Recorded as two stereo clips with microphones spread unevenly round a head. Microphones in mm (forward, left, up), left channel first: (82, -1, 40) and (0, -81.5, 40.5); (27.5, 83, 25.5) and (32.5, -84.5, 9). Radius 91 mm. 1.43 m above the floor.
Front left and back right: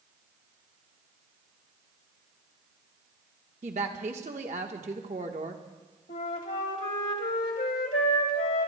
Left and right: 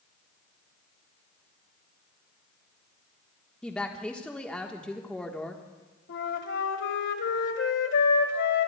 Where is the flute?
80° left, 1.5 m.